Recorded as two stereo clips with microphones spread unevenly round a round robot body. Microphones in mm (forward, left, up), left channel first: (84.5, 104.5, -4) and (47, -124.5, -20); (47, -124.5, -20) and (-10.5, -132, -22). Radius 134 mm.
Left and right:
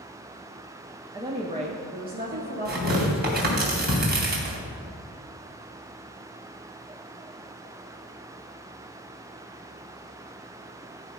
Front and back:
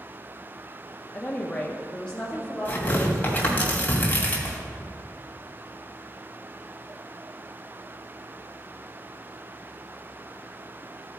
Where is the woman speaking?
45° right, 0.9 m; by 3.6 s 70° right, 2 m.